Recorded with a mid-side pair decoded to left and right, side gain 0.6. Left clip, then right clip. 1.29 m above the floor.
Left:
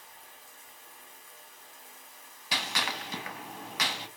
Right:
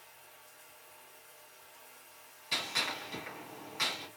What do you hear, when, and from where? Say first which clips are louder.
0.0 s running water: left 5 dB; 65° left, 1.4 m
2.5 s a gunshot: left 6 dB; 60° left, 1.3 m